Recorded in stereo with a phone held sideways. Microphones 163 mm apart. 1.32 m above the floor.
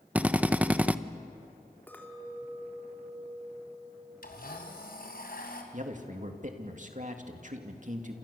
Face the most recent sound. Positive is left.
turn(degrees=-50)  # may be behind; listen again after turning